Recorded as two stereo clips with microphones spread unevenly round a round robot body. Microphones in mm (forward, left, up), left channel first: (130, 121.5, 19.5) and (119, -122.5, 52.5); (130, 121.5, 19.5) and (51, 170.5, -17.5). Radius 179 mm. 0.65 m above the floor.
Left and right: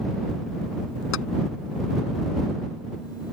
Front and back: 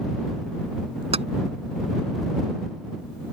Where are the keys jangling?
140° left.